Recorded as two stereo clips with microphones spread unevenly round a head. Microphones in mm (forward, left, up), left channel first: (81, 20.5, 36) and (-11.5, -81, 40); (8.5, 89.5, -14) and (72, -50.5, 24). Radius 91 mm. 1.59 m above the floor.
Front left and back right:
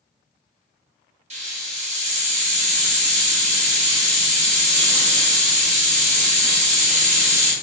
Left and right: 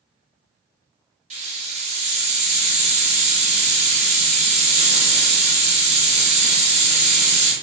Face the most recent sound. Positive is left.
turn(degrees=-105)